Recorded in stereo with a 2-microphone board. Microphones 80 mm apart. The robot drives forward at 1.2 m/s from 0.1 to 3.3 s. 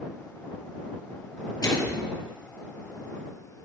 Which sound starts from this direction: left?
A microwave, at 1.6 s.